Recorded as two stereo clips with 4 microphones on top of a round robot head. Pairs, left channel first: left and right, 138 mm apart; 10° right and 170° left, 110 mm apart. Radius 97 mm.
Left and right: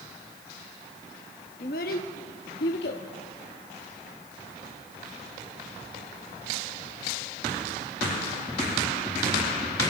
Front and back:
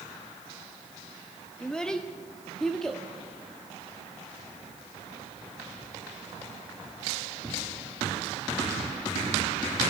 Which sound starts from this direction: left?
A child speaking, at 1.6 s.